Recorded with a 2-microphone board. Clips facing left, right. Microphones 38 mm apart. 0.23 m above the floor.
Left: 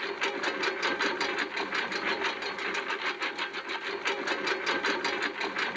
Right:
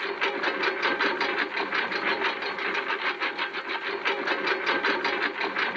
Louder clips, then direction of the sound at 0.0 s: Right 4 dB; 15° right (ahead or behind).